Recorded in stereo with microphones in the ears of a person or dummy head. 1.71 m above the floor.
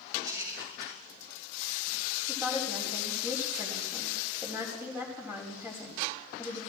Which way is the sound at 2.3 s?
10° right (ahead or behind).